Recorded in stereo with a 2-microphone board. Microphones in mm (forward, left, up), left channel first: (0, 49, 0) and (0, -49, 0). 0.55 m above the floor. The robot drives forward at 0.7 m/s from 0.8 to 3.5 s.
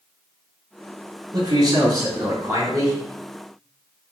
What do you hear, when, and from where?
1.3 s a man speaking: 40° right (ahead or behind), 2.5 m; by 3.0 s 30° right (ahead or behind), 3.5 m